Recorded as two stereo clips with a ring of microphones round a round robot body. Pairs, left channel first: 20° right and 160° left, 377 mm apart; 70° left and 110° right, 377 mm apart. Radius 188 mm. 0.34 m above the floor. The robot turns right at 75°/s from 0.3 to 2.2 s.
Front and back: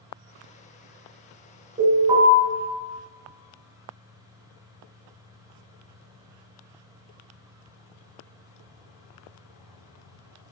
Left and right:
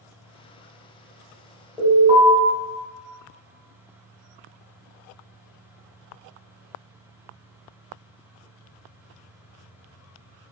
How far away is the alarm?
About 1.3 m.